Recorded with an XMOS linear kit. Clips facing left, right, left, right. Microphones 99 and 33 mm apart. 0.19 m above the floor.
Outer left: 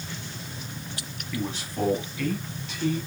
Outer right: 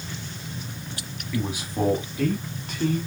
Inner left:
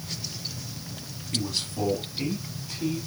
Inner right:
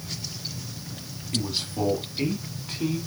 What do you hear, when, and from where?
1.3 s a man speaking: 5° right (ahead or behind), 1.4 m; by 3.0 s 55° right (ahead or behind), 2 m